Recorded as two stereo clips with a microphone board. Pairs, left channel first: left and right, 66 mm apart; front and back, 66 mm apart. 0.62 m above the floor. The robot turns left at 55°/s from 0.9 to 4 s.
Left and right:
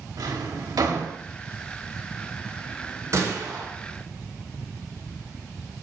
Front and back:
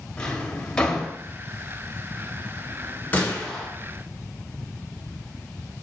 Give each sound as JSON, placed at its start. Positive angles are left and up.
{"t": 0.2, "sound": "a drawer", "azimuth_deg": -75, "distance_m": 1.2}
{"t": 3.1, "sound": "a gunshot", "azimuth_deg": -55, "distance_m": 2.5}